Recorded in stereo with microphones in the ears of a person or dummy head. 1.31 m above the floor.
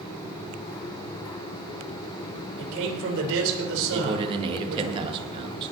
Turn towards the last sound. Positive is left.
turn(degrees=-25)  # may be behind; listen again after turning